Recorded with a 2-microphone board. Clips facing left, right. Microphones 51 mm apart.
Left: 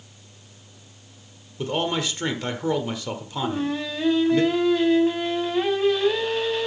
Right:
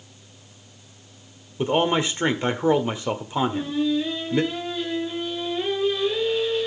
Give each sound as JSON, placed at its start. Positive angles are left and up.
{"t": 1.6, "sound": "a man speaking", "side_deg": -25, "distance_m": 1.3}
{"t": 3.4, "sound": "singing", "side_deg": 65, "distance_m": 3.5}